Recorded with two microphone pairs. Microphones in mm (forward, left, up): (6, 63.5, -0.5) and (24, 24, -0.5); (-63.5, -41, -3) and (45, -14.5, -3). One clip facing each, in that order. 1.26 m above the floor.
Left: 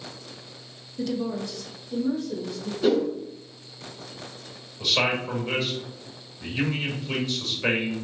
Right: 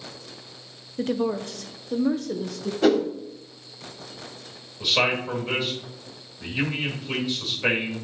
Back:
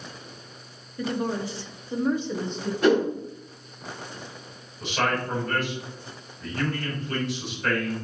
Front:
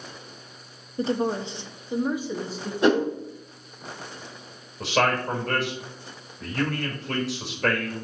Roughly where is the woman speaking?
Ahead right.